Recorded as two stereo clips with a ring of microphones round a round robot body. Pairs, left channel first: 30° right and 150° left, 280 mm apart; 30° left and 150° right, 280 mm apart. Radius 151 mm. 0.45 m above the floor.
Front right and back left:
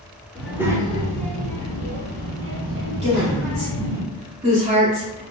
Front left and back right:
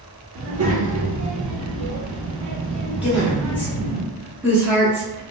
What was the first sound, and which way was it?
A child speaking, 120° right.